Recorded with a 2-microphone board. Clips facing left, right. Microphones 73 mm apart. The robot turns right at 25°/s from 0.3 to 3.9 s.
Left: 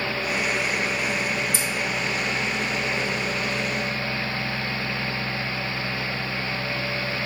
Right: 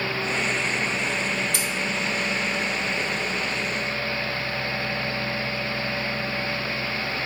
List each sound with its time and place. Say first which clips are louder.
1.5 s scissors: left 1 dB; 65° right (ahead or behind), 2 m